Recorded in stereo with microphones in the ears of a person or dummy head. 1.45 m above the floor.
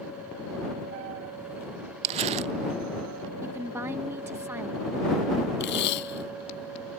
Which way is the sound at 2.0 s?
40° right (ahead or behind).